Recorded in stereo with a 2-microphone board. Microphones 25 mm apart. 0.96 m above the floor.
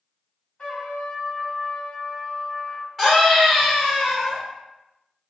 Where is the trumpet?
45° left (ahead or behind), 1.5 m.